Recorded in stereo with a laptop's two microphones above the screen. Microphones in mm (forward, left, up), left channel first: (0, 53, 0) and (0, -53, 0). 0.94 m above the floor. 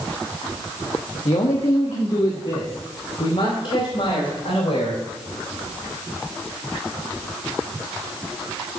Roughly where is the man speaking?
Left.